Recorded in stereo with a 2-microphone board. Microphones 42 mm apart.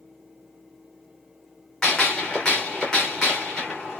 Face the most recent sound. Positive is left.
turn(degrees=15)  # may be behind; listen again after turning